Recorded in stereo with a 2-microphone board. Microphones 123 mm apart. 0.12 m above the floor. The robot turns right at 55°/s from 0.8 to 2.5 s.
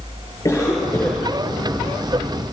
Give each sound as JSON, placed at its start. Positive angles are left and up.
{"t": 0.5, "sound": "a cough", "side_deg": 25, "distance_m": 10.0}